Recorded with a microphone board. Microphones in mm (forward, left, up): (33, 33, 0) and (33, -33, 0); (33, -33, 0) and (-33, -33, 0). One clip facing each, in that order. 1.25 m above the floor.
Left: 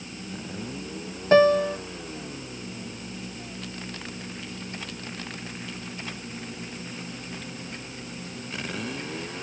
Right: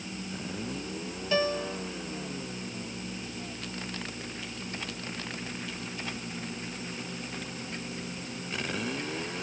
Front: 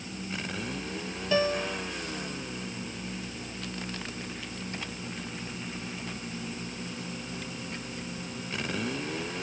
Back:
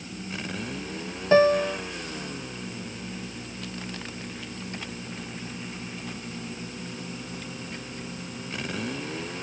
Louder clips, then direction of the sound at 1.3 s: Left 11 dB, back 9 dB; 130° left.